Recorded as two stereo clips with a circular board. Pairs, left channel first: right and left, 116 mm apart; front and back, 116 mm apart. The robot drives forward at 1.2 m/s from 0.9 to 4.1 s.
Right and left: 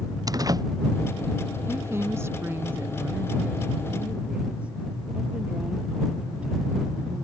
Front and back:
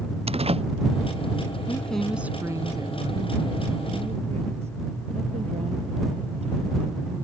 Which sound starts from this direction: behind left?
A door slam, at 0.3 s.